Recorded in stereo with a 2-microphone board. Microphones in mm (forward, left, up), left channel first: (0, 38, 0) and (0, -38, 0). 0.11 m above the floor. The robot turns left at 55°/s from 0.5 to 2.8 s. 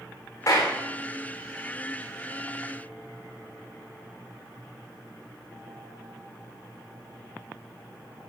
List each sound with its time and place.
0.5 s a clap: 45° left (ahead or behind), 8.5 m; by 0.8 s 30° left (ahead or behind), 8.5 m